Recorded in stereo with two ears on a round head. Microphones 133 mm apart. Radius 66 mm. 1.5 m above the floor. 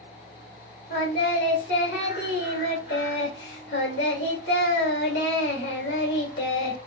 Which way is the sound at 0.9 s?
85° left.